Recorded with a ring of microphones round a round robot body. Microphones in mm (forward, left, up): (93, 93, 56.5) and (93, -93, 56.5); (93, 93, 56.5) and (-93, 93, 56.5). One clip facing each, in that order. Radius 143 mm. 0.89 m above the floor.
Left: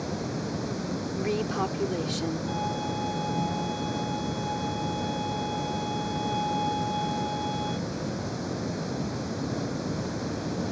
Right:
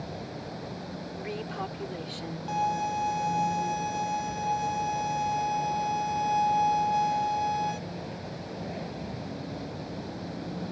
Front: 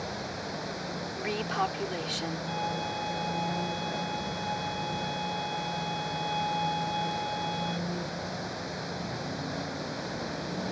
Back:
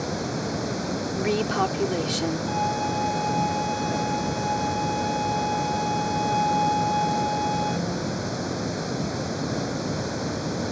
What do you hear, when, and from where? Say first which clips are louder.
0.0 s running water: left 7 dB, back 9 dB; 145° left
1.1 s a woman speaking: left 8 dB, back 8 dB; 140° left
2.5 s a violin: even, back 7 dB; 130° right